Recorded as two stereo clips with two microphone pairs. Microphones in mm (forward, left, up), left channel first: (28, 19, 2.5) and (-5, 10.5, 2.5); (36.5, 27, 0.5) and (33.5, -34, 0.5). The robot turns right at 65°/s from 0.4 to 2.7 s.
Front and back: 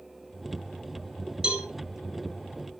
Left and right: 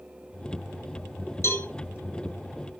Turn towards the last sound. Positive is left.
turn(degrees=-145)